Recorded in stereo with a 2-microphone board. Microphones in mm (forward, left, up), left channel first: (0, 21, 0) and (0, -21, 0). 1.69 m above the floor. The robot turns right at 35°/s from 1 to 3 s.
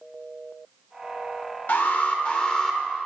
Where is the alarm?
130° left, 1.1 m; by 2.8 s 170° left, 1.1 m.